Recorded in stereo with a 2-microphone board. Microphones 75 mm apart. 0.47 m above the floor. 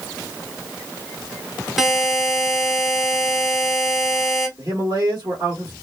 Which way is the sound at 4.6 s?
40° right (ahead or behind).